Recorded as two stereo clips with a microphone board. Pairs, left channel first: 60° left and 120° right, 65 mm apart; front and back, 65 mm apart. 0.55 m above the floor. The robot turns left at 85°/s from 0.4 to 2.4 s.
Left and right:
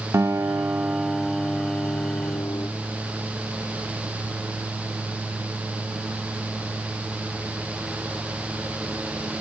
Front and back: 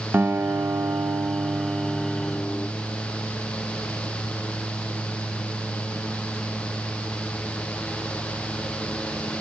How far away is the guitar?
About 0.5 m.